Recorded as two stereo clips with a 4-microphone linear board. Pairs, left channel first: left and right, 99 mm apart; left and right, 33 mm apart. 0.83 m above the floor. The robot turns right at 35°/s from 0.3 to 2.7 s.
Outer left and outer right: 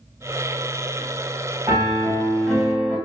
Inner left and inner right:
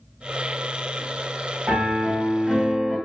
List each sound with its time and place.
1.7 s a piano: 45° right, 1.7 m; by 3.0 s 10° right, 1.7 m